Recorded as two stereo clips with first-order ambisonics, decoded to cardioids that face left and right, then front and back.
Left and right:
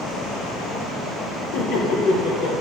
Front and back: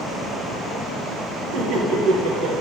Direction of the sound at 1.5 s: 125° left.